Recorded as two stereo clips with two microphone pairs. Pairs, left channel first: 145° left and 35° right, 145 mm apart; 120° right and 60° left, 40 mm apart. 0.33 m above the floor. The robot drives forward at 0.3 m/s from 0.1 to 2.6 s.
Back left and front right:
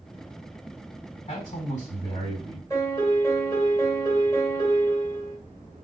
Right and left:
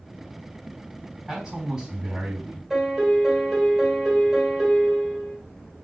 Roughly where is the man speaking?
Behind left.